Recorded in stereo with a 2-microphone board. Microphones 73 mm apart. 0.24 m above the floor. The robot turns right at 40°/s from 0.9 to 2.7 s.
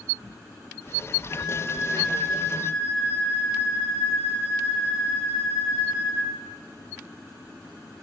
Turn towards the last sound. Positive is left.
turn(degrees=-170)